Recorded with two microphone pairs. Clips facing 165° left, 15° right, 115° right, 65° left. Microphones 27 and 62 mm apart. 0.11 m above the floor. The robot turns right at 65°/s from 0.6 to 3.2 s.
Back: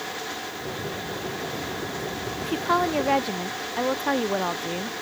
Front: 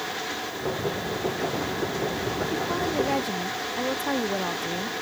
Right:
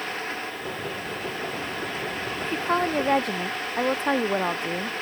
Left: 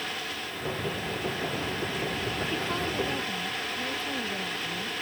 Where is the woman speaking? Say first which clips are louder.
Back 7 dB, right 9 dB; straight behind; by 4.9 s 130° right.